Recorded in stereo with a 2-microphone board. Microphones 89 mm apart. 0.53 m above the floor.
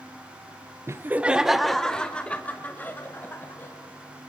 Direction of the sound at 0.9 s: 30° right (ahead or behind).